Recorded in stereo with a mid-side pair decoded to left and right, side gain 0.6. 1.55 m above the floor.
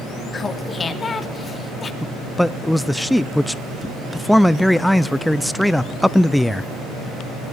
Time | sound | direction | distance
0.3 | laughter | 25° left | 3 m
2.0 | a man speaking | 5° left | 0.6 m